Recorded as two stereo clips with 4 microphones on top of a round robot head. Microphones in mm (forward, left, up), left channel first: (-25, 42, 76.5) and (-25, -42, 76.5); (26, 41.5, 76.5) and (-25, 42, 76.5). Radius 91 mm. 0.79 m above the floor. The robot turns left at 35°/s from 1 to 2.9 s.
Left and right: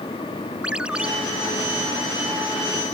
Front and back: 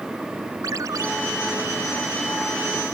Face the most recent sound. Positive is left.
turn(degrees=125)